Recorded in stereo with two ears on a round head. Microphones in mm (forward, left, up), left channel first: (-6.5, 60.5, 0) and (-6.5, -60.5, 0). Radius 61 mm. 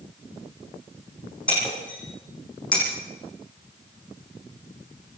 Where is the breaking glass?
10° left (ahead or behind), 8 m.